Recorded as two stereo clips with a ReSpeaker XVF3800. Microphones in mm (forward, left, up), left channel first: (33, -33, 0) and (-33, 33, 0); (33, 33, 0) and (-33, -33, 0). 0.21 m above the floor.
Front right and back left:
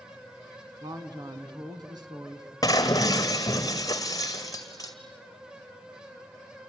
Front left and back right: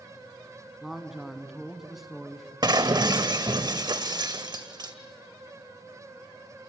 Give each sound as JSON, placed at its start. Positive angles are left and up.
{"t": 0.8, "sound": "a man speaking", "azimuth_deg": 140, "distance_m": 2.0}
{"t": 2.6, "sound": "breaking glass", "azimuth_deg": -95, "distance_m": 1.6}